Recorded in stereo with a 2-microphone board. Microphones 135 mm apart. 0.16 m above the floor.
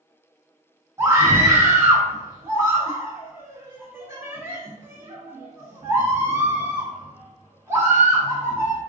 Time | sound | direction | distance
1.0 | a scream | 20° right (ahead or behind) | 1.1 m